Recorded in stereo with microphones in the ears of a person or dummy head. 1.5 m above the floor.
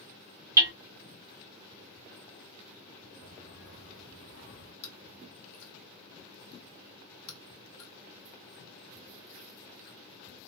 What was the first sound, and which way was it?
Hammering, 15° right (ahead or behind).